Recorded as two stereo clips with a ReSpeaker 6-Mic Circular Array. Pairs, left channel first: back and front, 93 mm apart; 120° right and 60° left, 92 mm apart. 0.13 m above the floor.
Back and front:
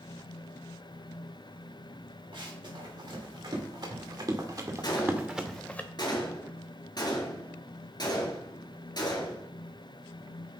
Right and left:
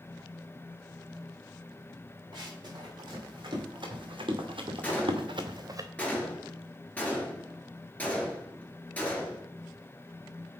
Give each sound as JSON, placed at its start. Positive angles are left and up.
{"t": 2.3, "sound": "running footsteps", "azimuth_deg": 20, "distance_m": 4.5}
{"t": 4.8, "sound": "a gunshot", "azimuth_deg": 170, "distance_m": 2.0}